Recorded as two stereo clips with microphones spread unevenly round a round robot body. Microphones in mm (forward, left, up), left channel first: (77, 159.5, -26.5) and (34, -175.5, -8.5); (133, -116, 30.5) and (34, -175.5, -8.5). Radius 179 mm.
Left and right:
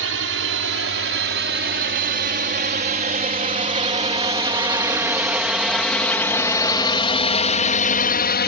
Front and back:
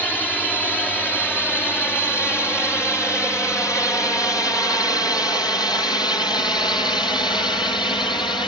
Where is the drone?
55° right; by 8.5 s 85° left.